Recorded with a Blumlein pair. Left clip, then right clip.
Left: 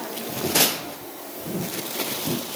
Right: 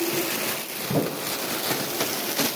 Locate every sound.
Only background noise.